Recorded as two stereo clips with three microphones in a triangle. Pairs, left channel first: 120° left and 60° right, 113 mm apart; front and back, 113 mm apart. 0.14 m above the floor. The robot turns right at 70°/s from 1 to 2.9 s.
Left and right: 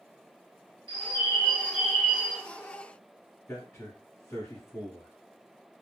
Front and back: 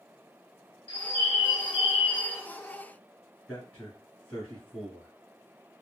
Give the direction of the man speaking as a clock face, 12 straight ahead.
9 o'clock.